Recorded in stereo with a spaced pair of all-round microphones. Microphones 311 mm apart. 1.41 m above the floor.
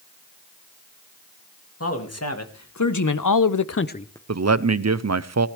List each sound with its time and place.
1.8 s a man speaking: 50° left (ahead or behind), 2.0 m; by 4.2 s 10° left (ahead or behind), 0.7 m
4.3 s a man speaking: 55° right (ahead or behind), 0.5 m